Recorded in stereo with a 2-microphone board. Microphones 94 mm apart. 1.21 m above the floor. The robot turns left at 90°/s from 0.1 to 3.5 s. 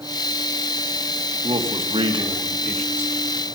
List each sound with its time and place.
1.4 s a man speaking: 60° right, 1.8 m; by 3.1 s 145° left, 1.8 m